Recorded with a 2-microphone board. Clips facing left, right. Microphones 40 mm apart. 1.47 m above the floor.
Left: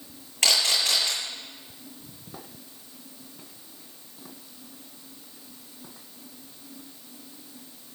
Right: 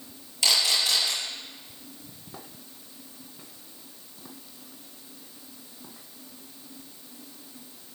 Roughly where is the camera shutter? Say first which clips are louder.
Left 1 dB; left.